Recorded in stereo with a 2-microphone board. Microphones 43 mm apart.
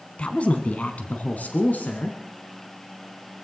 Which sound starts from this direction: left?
A woman speaking, at 0.2 s.